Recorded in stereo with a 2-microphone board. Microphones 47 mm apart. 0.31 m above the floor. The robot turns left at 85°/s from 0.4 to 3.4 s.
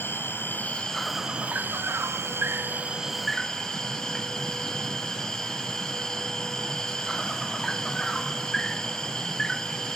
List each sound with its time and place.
0.0 s an insect: 55° left, 0.8 m; by 10.0 s 160° left, 0.8 m